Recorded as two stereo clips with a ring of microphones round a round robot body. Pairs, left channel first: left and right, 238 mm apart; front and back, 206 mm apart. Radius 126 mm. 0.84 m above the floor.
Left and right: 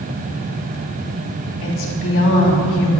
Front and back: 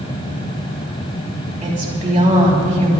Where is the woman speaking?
125° left, 5.5 m.